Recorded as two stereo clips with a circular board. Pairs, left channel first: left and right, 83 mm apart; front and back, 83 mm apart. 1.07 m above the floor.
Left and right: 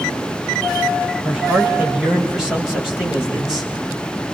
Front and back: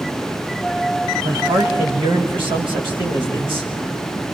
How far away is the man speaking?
About 5.5 m.